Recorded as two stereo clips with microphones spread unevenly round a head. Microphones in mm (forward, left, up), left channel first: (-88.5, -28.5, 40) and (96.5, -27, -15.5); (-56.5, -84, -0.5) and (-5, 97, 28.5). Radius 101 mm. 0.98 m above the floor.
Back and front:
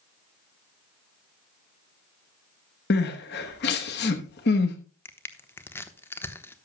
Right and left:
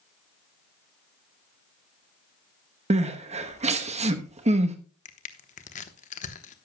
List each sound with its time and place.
2.9 s crying: 135° left, 1.0 m
5.0 s crushing: 90° right, 1.0 m